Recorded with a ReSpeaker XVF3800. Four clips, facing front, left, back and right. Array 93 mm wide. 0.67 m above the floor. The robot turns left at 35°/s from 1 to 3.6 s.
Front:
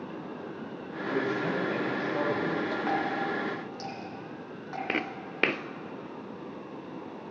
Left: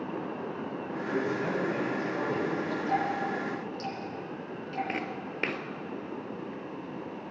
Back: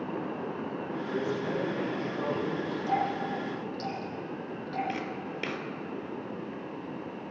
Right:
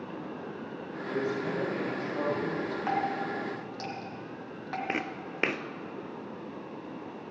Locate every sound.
1.1 s a man speaking: 55° left, 5 m; by 2.8 s 5° right, 5 m
2.9 s dripping: 50° right, 3.5 m; by 4.8 s 80° right, 3.5 m
4.9 s footsteps: 20° right, 0.8 m